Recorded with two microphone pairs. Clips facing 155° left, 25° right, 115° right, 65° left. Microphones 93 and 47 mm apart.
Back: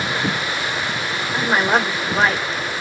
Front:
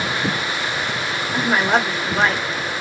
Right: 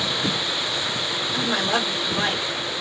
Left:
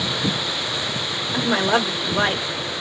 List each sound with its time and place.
1.3 s a woman speaking: 70° left, 0.6 m